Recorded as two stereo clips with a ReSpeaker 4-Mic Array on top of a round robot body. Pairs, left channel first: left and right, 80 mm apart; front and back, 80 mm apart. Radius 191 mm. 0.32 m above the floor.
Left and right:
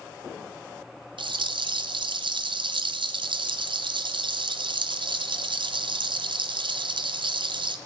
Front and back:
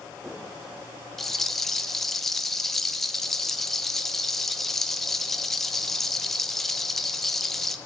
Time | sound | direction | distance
1.2 | a rattle | 90° right | 1.1 m